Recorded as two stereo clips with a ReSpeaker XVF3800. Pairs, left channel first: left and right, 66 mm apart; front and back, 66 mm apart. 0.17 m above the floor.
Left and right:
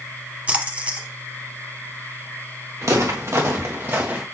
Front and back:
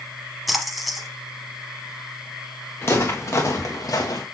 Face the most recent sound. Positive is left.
turn(degrees=-25)